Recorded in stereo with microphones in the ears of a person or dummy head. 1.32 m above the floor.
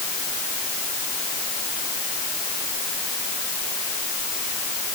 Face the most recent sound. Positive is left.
No sound to turn to.